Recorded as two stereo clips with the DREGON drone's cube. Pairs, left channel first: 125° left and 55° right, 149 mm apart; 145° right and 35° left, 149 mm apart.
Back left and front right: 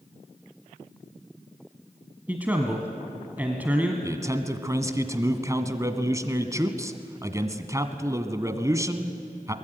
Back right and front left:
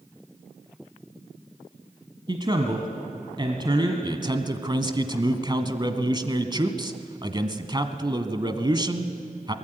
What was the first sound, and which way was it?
A man speaking, 15° left.